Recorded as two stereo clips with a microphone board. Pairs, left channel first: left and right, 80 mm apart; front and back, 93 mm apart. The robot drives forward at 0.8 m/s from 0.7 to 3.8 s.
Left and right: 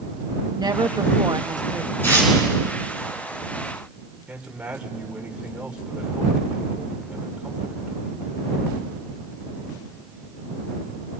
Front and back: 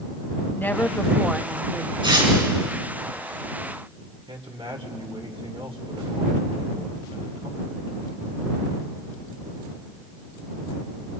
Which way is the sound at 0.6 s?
65° right.